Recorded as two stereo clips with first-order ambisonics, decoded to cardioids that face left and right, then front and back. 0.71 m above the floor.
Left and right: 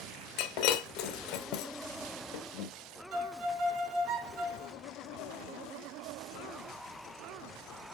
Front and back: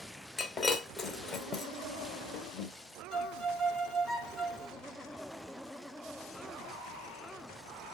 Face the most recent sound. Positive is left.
turn(degrees=-80)